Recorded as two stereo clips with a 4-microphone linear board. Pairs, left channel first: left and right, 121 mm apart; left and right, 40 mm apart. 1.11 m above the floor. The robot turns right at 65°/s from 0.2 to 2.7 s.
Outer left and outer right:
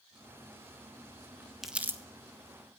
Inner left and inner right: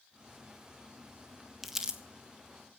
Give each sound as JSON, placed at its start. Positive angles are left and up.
{"t": 1.6, "sound": "crumpling", "side_deg": 0, "distance_m": 1.6}